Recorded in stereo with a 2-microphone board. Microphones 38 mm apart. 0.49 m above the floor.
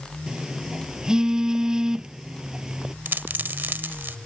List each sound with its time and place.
0.3 s a phone buzzing: 15° right (ahead or behind)
3.0 s a dropped coin: 65° right (ahead or behind)